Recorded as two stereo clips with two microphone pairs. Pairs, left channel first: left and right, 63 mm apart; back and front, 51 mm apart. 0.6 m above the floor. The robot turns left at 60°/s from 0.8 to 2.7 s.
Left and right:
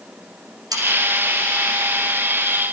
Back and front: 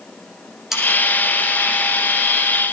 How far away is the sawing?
About 9.5 m.